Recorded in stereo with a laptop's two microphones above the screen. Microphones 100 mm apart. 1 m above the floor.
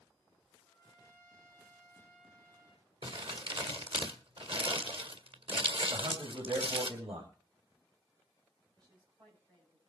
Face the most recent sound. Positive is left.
turn(degrees=-45)  # may be behind; listen again after turning